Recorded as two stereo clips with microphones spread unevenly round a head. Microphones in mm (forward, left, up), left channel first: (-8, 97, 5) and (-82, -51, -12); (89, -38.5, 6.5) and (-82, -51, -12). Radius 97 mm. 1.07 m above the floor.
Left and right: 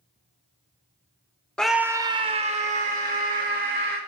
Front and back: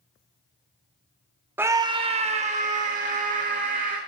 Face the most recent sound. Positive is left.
turn(degrees=-140)